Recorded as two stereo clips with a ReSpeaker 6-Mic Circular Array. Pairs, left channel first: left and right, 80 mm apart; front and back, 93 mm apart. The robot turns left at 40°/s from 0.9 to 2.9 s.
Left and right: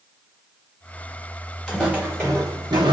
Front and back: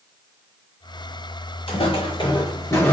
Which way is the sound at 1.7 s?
5° right.